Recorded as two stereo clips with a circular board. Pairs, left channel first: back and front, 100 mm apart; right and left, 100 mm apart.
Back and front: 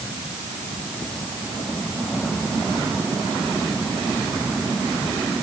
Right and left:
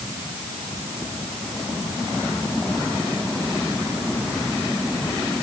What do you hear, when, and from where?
Only background noise.